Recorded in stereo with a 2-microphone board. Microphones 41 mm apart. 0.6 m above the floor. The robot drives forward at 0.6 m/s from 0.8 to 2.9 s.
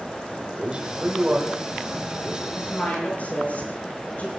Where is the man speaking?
25° right (ahead or behind), 2.5 m; by 2.4 s 20° right (ahead or behind), 3.5 m.